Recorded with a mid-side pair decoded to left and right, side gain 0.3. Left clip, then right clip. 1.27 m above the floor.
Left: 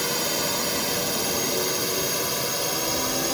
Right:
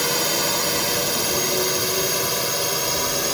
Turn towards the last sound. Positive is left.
turn(degrees=-30)